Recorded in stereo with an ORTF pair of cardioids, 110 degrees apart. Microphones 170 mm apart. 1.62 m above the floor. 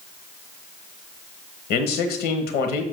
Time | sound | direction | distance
1.7 | a man speaking | 65° left | 1.3 m